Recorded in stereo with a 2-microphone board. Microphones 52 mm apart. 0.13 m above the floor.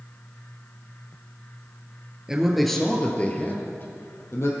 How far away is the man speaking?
About 2.0 m.